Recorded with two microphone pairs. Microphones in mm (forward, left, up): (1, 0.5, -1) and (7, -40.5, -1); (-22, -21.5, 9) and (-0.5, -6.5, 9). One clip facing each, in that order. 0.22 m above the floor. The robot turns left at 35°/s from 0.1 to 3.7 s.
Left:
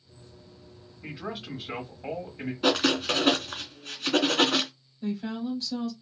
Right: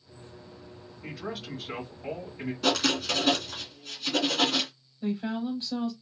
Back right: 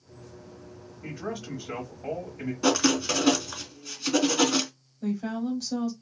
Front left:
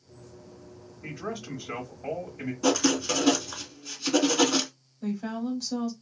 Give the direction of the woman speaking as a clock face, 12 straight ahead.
2 o'clock.